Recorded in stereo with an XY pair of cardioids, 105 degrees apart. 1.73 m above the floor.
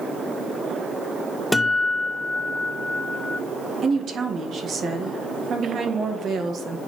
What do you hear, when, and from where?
1.5 s a guitar: 5° left, 0.6 m
3.8 s a woman speaking: 55° right, 1.6 m